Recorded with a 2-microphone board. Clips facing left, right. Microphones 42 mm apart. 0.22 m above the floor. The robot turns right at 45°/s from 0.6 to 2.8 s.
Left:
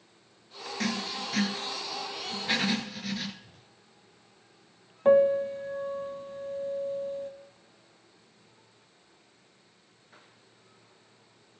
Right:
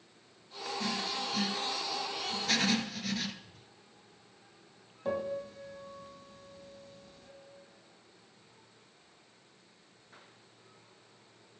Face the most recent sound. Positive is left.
turn(degrees=45)  # may be behind; listen again after turning